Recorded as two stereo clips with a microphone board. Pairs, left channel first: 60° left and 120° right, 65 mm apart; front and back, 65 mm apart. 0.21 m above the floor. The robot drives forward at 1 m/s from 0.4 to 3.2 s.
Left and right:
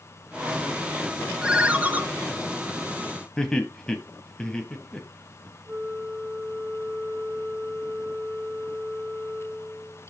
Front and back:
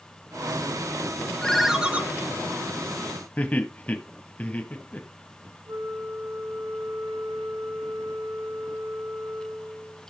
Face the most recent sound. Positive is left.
turn(degrees=170)